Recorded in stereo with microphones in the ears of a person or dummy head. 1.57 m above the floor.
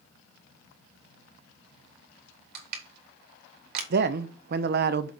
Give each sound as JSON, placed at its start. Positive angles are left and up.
{"t": 2.5, "sound": "crushing", "side_deg": -60, "distance_m": 2.5}
{"t": 3.9, "sound": "a man speaking", "side_deg": -45, "distance_m": 0.7}